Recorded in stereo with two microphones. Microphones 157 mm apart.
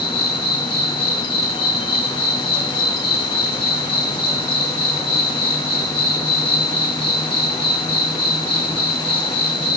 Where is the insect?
35° left (ahead or behind), 2.0 m.